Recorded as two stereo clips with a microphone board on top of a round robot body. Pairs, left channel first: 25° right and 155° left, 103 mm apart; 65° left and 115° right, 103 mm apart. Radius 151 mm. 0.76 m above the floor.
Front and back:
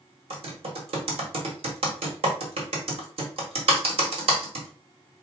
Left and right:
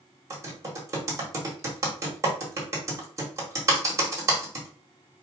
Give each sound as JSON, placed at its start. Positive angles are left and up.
{"t": 0.3, "sound": "typing on a keyboard", "azimuth_deg": -175, "distance_m": 1.5}